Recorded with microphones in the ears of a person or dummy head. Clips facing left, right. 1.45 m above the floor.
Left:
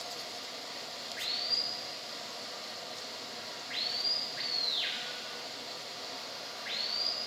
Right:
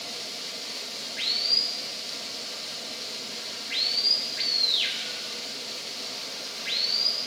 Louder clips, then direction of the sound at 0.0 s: Right 3 dB; 45° right (ahead or behind).